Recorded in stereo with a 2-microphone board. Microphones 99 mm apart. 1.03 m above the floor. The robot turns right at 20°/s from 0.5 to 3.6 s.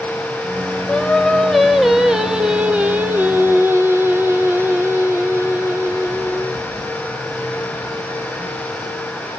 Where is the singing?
165° left, 0.7 m; by 6.6 s 140° right, 0.7 m.